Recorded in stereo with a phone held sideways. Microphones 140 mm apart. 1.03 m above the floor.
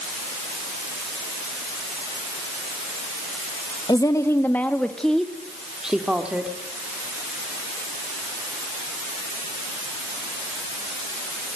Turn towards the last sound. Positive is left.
turn(degrees=-10)  # may be behind; listen again after turning